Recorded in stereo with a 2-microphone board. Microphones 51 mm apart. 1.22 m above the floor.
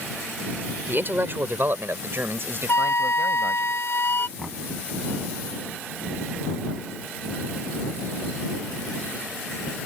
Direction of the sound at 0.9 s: 40° right (ahead or behind).